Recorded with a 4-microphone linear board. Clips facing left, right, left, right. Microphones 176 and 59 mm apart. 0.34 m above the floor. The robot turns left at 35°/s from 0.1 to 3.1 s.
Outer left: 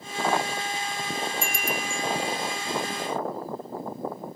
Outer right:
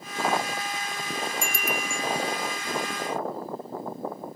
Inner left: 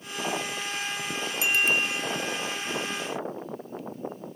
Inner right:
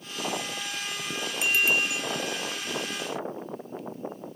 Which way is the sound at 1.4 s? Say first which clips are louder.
Even, even; 5° left (ahead or behind).